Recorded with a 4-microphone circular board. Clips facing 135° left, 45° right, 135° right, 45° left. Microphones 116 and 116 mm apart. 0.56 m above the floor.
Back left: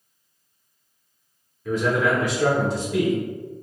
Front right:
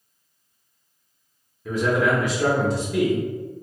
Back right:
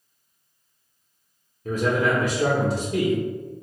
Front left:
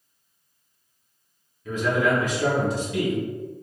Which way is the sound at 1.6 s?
120° right.